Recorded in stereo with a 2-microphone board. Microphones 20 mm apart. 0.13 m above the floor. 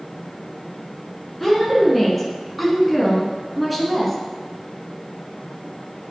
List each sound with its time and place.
1.4 s a woman speaking: centre (ahead or behind), 1.8 m; by 4.2 s 5° left (ahead or behind), 2.0 m